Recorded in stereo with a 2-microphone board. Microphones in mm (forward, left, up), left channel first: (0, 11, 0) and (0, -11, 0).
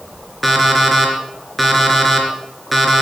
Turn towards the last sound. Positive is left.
turn(degrees=5)  # may be behind; listen again after turning